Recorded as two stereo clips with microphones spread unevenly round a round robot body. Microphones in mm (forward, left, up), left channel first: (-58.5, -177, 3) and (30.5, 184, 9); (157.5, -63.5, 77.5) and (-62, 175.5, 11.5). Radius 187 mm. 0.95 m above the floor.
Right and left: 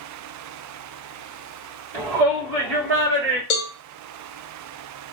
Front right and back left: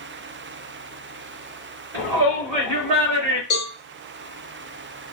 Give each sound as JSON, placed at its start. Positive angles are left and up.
{"t": 1.9, "sound": "a shout", "azimuth_deg": 125, "distance_m": 2.5}
{"t": 3.5, "sound": "a cowbell", "azimuth_deg": -105, "distance_m": 0.7}